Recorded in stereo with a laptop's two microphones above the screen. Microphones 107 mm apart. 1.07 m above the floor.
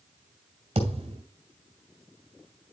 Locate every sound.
0.8 s a thud: 60° right (ahead or behind), 2.5 m